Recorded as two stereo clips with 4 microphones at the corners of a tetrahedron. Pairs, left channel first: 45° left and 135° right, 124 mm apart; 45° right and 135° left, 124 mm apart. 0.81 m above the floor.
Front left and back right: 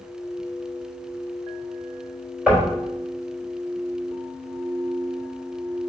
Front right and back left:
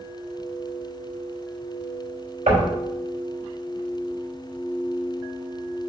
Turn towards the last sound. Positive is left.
turn(degrees=145)